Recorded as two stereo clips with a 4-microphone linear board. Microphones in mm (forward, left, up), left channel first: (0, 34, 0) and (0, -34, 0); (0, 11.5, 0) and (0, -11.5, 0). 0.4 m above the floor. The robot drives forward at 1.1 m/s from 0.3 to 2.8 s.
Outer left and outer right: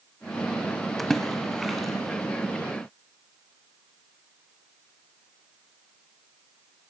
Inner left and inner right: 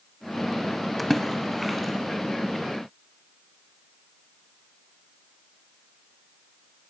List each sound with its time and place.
1.0 s a splash: 5° left (ahead or behind), 1.0 m; by 2.2 s centre (ahead or behind), 2.5 m